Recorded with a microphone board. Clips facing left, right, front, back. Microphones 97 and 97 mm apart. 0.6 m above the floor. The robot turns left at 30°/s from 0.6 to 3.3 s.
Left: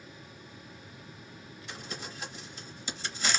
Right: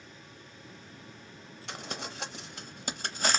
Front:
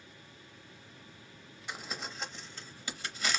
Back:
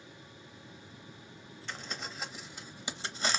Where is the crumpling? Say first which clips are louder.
Right 3 dB, front 1 dB; 80° right, 0.6 m; by 3.4 s 125° right, 0.6 m.